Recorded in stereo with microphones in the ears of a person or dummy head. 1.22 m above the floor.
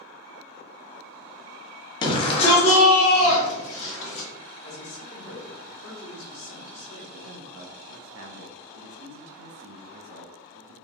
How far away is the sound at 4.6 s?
About 1.2 m.